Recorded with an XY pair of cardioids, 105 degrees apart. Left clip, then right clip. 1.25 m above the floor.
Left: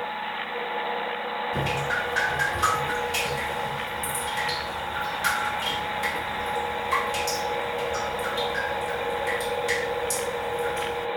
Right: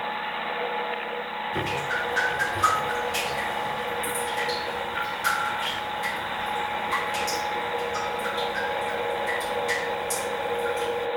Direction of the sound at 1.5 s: 30° left.